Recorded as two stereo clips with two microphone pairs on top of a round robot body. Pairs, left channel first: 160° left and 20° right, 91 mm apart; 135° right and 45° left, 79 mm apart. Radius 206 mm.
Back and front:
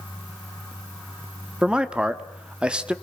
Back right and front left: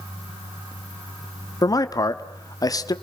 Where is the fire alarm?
I don't hear a fire alarm.